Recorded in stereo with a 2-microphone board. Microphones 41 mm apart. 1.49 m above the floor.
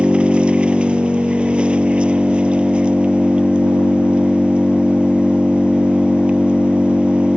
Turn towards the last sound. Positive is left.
turn(degrees=-25)  # may be behind; listen again after turning